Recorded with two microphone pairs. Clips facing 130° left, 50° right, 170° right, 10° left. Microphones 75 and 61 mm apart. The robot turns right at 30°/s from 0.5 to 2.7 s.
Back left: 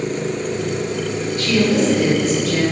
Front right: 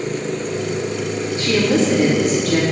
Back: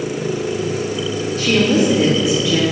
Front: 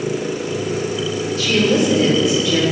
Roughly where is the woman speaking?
Behind right.